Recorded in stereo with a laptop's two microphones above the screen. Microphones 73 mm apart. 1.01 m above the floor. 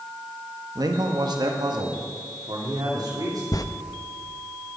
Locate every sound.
0.8 s a man speaking: 55° right (ahead or behind), 1.5 m; by 3.4 s 60° right (ahead or behind), 3.5 m
3.5 s a zipper: 55° left (ahead or behind), 0.7 m